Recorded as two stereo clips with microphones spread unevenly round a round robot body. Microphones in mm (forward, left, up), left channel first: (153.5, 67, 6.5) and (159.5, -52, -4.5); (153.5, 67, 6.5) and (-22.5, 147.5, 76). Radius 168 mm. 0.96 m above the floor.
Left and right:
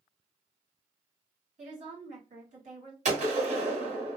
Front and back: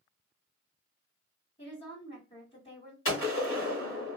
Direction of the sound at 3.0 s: 80° right.